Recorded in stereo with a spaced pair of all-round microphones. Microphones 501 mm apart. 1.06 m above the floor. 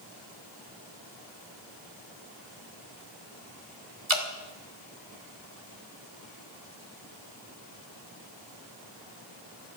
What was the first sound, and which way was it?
Dripping, 70° right (ahead or behind).